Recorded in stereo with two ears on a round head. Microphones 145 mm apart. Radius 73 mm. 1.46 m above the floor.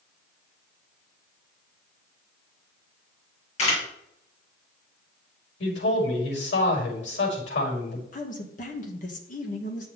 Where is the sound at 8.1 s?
50° left (ahead or behind), 2 m.